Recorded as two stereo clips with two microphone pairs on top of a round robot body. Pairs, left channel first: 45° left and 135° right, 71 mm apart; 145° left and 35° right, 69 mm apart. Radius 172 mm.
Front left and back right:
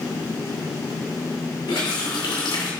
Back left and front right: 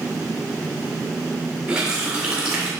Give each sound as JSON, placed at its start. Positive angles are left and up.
{"t": 1.7, "sound": "a running tap", "azimuth_deg": 40, "distance_m": 2.0}